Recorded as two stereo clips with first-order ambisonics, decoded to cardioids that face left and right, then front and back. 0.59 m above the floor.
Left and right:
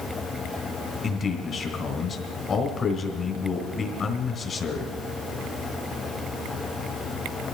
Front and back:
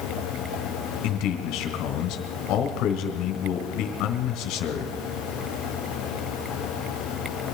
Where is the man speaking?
25° left, 2.5 m.